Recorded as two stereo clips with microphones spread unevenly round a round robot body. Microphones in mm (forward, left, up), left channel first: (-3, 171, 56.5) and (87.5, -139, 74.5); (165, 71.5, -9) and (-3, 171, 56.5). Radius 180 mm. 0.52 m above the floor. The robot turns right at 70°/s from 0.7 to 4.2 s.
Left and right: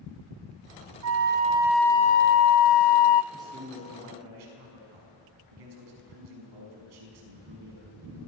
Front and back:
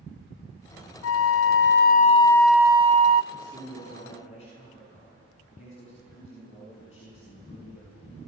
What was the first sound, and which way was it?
A flute, 35° right.